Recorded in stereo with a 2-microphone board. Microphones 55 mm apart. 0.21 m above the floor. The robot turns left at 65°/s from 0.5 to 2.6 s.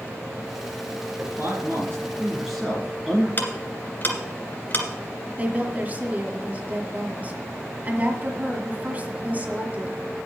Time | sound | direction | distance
1.2 | a man speaking | 85° right | 2.5 m
3.4 | ticking | 40° left (ahead or behind) | 2 m
5.4 | a woman speaking | 30° right (ahead or behind) | 1.9 m